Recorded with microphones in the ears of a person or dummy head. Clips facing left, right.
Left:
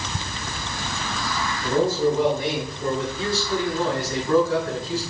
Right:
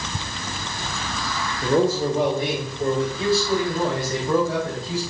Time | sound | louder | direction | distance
1.6 | a man speaking | right 1 dB | 55° right (ahead or behind) | 1.8 m